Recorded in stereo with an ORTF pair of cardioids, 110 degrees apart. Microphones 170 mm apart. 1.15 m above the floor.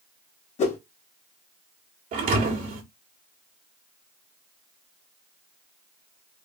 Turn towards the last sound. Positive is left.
turn(degrees=-60)